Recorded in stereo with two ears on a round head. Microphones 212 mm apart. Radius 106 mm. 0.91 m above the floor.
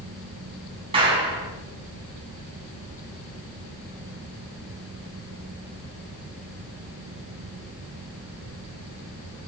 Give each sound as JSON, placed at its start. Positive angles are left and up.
{"t": 0.9, "sound": "a clap", "side_deg": -25, "distance_m": 5.5}